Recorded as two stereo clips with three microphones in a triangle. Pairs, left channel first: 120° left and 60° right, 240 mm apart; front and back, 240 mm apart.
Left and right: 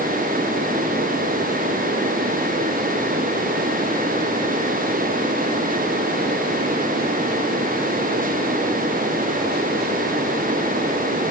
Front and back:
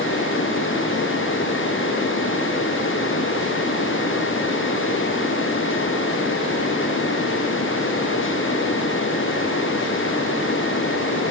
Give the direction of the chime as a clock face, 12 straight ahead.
I don't hear a chime.